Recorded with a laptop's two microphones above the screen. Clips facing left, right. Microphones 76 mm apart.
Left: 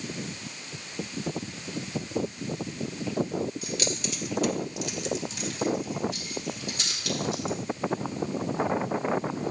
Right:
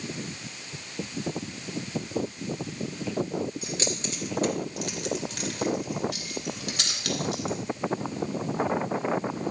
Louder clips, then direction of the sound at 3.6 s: Even; 25° right (ahead or behind).